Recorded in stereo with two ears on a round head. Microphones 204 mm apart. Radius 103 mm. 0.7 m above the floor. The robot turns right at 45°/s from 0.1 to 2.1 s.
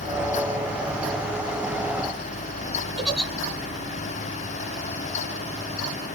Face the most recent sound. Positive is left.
turn(degrees=0)  # may be behind; listen again after turning